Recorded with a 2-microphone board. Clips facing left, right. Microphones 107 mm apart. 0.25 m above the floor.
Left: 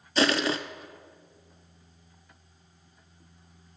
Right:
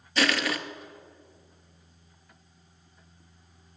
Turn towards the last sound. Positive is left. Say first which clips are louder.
# left 2 dB
turn(degrees=25)  # may be behind; listen again after turning